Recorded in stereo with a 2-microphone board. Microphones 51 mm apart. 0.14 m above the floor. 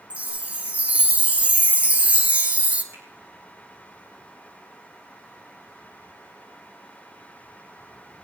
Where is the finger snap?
60° right (ahead or behind), 6.5 m.